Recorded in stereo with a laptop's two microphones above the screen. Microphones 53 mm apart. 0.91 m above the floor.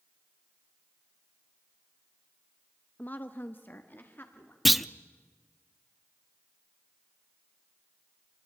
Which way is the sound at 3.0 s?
35° left (ahead or behind).